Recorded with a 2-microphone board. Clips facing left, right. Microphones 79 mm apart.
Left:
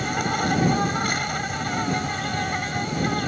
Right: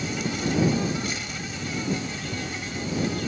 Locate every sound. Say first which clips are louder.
0.0 s an insect: left 4 dB; 50° left (ahead or behind)